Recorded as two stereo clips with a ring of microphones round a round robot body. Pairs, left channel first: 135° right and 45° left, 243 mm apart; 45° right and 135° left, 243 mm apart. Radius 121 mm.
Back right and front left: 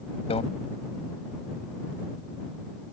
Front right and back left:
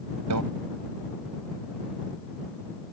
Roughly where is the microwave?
Behind left.